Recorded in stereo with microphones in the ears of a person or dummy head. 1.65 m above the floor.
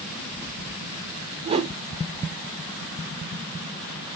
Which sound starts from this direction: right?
A whoosh, at 1.4 s.